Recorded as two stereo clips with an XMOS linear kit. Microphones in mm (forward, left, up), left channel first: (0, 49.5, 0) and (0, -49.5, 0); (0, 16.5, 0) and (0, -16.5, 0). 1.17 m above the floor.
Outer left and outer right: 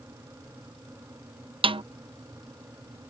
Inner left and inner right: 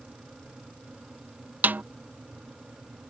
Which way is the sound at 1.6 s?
65° right (ahead or behind).